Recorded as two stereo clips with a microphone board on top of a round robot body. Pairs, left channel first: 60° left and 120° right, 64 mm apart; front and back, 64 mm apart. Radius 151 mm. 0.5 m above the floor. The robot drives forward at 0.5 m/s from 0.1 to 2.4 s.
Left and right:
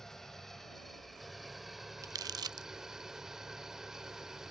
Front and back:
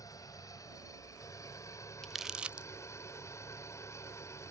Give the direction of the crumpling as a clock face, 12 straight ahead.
3 o'clock.